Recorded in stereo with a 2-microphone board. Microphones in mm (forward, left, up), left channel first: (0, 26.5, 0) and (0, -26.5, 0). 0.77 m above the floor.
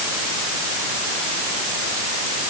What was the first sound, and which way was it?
Only background noise.